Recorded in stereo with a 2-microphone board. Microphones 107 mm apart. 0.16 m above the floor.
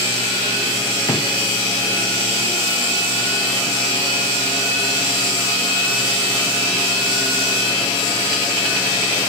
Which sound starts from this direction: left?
A drawer, at 1.1 s.